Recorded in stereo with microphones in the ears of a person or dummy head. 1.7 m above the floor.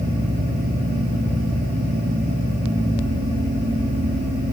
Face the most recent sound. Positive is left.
No sound to turn to.